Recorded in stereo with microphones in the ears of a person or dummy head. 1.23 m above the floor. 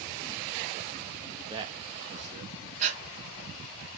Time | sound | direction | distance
1.4 | a man speaking | 15° right (ahead or behind) | 0.8 m
2.8 | breathing | 40° right (ahead or behind) | 0.9 m